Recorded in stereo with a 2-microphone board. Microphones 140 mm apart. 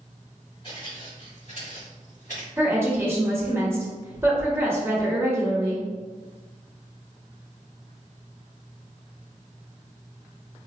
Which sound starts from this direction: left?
Footsteps, at 0.6 s.